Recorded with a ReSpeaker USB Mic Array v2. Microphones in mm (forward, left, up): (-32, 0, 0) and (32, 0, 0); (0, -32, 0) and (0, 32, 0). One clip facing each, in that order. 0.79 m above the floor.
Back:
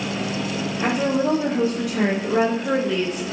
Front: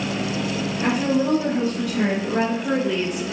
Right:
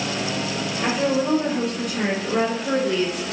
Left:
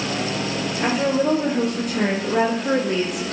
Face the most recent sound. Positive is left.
turn(degrees=35)